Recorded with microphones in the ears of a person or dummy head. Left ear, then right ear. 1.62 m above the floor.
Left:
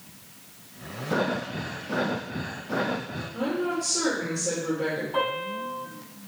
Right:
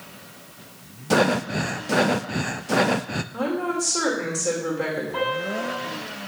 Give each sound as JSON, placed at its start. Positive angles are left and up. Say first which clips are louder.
{"t": 1.1, "sound": "breathing", "louder": "right 7 dB", "side_deg": -70, "distance_m": 0.5}
{"t": 3.3, "sound": "a woman speaking", "louder": "right 2 dB", "side_deg": -50, "distance_m": 2.5}
{"t": 5.1, "sound": "a piano", "louder": "right 3 dB", "side_deg": 25, "distance_m": 6.5}